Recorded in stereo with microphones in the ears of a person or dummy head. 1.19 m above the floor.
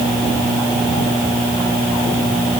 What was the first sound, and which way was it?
Only background noise.